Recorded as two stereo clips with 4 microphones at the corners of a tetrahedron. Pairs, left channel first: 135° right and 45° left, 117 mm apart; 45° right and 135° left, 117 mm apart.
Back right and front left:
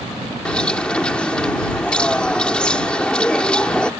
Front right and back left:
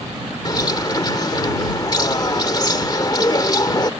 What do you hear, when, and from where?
0.5 s a bird: 60° right